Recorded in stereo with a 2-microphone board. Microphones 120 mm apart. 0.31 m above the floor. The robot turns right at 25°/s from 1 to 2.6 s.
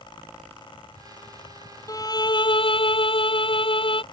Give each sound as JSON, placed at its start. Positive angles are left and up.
{"t": 1.9, "sound": "a violin", "side_deg": 30}